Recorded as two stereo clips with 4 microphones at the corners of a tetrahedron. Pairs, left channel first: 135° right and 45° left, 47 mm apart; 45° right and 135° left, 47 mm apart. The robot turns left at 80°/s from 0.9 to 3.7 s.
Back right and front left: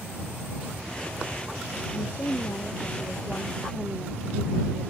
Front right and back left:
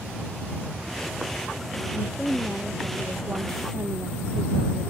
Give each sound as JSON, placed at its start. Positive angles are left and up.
{"t": 1.9, "sound": "a woman speaking", "azimuth_deg": -95}